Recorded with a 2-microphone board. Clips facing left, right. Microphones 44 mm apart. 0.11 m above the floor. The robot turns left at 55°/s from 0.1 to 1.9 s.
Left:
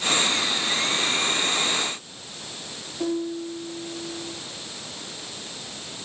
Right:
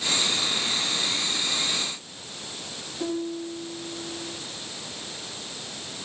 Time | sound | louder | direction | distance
3.0 | a piano | left 3 dB | 20° left (ahead or behind) | 7.5 m